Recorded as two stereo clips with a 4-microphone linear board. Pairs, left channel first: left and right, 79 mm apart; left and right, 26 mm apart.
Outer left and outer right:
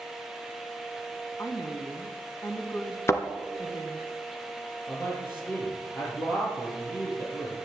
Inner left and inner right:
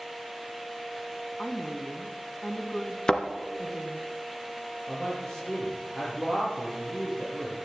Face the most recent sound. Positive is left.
turn(degrees=25)  # may be behind; listen again after turning